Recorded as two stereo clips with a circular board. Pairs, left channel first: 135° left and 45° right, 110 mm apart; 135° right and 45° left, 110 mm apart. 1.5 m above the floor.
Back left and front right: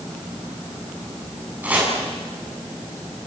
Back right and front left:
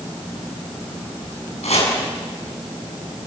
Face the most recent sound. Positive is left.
turn(degrees=-120)